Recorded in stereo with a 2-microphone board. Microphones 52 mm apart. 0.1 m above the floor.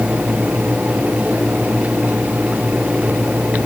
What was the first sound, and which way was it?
Only background noise.